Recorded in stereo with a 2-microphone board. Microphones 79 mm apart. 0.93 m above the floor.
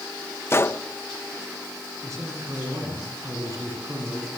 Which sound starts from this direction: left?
A gunshot, at 0.5 s.